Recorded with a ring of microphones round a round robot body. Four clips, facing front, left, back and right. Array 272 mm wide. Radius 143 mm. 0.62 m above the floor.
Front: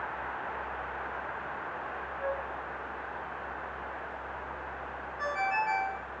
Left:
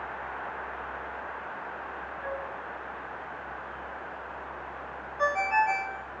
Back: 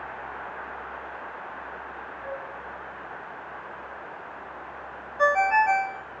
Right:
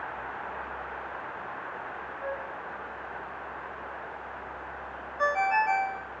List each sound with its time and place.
2.2 s a flute: 20° right, 6 m
5.2 s a ringtone: straight behind, 2.5 m